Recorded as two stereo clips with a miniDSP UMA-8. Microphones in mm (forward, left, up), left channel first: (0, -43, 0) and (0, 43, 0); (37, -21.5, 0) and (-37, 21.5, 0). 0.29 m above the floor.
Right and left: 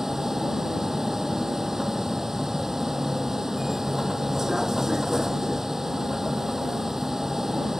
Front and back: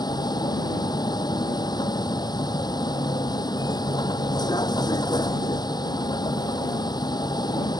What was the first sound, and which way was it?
A vehicle, 5° left.